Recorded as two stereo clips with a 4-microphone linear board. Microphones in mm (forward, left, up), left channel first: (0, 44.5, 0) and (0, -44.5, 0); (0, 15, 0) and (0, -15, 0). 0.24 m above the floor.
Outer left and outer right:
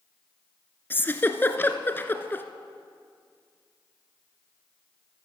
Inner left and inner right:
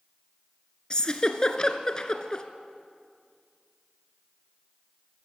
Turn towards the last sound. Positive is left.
turn(degrees=25)  # may be behind; listen again after turning